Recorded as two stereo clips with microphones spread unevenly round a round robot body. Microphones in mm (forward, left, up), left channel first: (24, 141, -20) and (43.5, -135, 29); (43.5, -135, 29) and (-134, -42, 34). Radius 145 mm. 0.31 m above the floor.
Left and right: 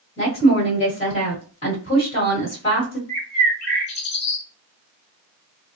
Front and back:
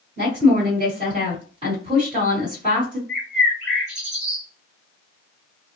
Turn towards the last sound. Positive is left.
turn(degrees=65)